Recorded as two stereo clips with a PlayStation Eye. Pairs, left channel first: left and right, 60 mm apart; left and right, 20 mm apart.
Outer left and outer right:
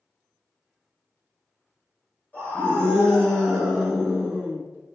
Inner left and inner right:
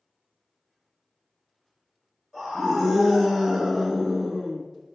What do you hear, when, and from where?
2.3 s a scream: 25° left (ahead or behind), 1.5 m; by 4.6 s 20° right (ahead or behind), 1.3 m